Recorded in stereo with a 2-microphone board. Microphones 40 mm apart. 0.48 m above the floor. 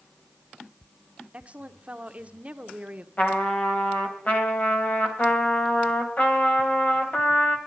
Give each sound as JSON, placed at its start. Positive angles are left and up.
{"t": 1.3, "sound": "a woman speaking", "side_deg": -30, "distance_m": 1.0}
{"t": 3.2, "sound": "a trumpet", "side_deg": 40, "distance_m": 2.0}